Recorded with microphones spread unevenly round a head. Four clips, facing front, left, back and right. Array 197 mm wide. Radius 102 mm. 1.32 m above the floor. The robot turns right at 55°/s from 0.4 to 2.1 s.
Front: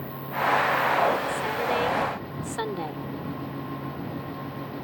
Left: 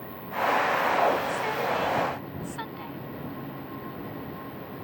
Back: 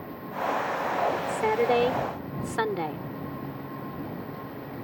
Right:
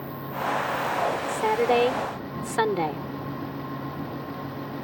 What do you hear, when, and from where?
0.0 s an insect: 15° left; by 4.8 s 110° left
1.3 s a woman speaking: 150° right; by 3.1 s 105° right